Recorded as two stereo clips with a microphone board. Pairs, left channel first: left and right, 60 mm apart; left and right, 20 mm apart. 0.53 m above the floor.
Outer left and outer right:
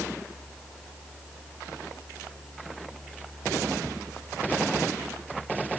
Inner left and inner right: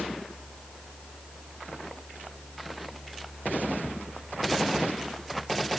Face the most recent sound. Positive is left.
No sound to turn to.